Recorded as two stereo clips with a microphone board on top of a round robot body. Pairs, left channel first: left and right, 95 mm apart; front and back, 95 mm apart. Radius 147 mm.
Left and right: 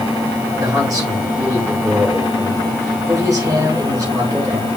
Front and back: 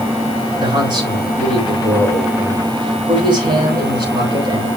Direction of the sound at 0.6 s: 140° right.